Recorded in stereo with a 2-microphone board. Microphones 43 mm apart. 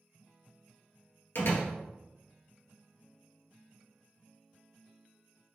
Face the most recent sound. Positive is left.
turn(degrees=60)  # may be behind; listen again after turning